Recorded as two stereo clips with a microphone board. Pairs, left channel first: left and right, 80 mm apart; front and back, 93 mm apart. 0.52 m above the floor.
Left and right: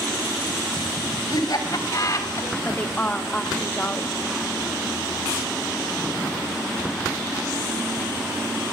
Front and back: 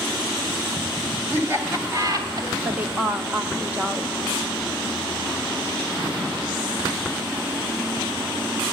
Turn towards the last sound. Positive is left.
turn(degrees=135)